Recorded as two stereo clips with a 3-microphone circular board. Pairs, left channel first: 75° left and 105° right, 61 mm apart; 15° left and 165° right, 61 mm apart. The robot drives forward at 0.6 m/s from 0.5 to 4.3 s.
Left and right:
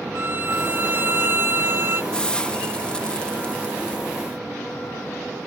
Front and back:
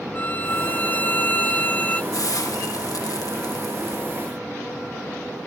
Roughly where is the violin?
Ahead right.